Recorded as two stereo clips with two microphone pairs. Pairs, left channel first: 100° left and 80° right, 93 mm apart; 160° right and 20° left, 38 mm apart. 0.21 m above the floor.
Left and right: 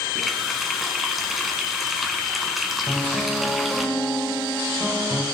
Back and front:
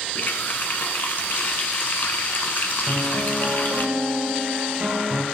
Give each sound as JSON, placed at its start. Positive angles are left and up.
{"t": 0.1, "sound": "a running tap", "azimuth_deg": -165, "distance_m": 1.4}
{"t": 2.9, "sound": "a piano", "azimuth_deg": 5, "distance_m": 5.0}